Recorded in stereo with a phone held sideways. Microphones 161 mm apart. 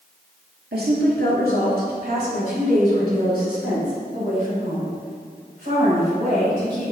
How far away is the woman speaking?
About 2.5 m.